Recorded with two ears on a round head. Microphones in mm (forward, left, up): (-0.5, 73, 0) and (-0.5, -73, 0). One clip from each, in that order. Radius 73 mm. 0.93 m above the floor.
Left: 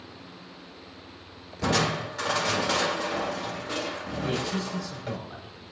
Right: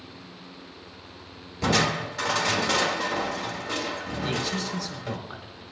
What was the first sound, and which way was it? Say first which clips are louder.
Crushing: right 2 dB; 10° right (ahead or behind).